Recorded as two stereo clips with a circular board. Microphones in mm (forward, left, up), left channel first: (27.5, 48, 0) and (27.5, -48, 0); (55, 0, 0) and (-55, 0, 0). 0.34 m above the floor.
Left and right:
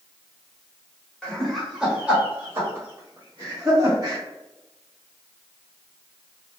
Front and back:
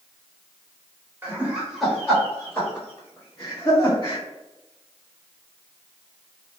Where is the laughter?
150° left, 0.9 m; by 4.2 s 45° right, 1.7 m.